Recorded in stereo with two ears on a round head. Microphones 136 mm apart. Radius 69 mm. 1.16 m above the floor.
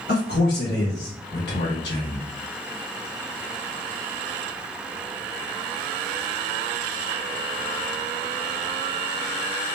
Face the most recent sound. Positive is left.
turn(degrees=90)